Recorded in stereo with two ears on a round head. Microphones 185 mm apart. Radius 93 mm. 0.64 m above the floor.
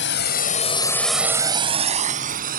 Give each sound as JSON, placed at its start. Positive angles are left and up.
{"t": 0.0, "sound": "a drone", "side_deg": 65}